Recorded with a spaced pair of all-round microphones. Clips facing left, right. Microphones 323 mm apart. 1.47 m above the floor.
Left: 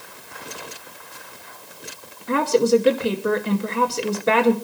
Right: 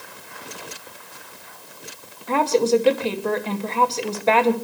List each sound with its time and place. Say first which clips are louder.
2.3 s a woman speaking: left 1 dB; 20° left (ahead or behind), 2 m